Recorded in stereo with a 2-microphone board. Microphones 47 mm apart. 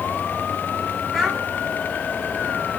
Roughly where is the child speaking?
Centre.